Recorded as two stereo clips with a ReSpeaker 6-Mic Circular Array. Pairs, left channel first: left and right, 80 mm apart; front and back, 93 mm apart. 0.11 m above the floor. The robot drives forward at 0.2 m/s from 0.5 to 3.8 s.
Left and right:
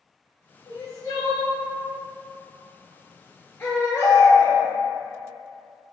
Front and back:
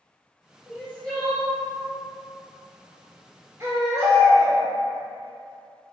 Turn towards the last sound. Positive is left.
turn(degrees=140)